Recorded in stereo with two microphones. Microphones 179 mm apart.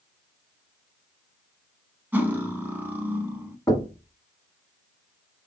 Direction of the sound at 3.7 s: 20° left (ahead or behind).